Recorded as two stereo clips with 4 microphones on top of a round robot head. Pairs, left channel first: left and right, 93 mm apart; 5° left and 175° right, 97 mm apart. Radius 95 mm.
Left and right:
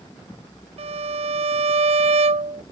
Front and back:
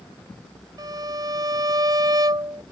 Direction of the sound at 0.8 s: 115° right.